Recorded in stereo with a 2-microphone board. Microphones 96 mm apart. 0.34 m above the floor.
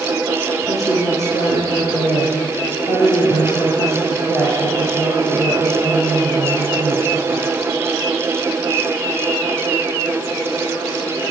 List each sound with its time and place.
0.6 s a woman speaking: 35° left (ahead or behind), 8 m